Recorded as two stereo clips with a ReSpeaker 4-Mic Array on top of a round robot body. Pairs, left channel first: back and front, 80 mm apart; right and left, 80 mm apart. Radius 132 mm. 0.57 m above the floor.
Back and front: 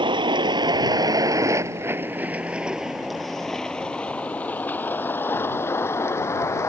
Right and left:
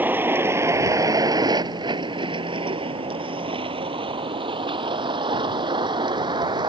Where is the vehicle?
20° left; by 6.7 s 120° left.